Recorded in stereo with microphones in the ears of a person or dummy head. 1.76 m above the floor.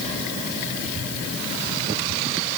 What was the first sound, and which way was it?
Only background noise.